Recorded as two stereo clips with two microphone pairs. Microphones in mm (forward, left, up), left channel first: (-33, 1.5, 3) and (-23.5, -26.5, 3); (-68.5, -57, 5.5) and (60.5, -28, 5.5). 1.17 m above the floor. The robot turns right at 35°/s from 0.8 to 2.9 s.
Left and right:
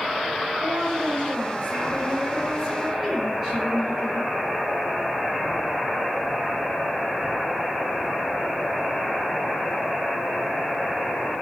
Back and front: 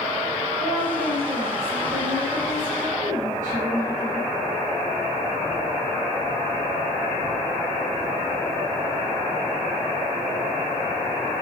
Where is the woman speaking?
45° right, 5.5 m; by 4.3 s 30° left, 5.5 m.